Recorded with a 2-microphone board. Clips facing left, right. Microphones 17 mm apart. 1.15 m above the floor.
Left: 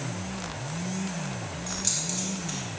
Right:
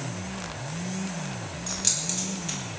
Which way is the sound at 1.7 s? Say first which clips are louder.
Right 2 dB; 25° right (ahead or behind).